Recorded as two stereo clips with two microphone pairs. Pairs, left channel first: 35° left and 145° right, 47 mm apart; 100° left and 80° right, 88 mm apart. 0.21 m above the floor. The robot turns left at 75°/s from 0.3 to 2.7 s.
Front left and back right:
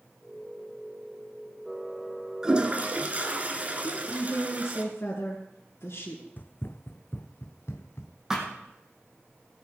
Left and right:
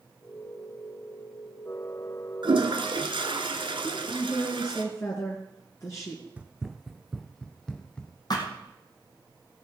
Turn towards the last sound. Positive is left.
turn(degrees=140)